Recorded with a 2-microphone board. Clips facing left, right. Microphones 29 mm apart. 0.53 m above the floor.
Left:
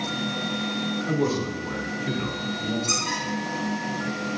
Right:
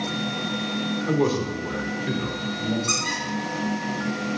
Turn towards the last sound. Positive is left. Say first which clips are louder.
# right 1 dB
turn(degrees=-70)  # may be behind; listen again after turning